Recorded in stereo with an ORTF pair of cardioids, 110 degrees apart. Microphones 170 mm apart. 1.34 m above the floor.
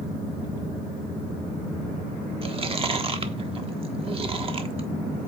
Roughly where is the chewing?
Ahead right.